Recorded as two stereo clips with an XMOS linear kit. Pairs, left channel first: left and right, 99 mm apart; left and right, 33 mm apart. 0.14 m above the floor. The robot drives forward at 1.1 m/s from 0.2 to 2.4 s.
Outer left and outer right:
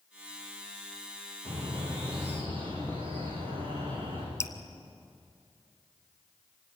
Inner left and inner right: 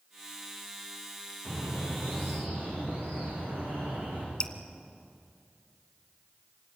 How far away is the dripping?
About 1.4 m.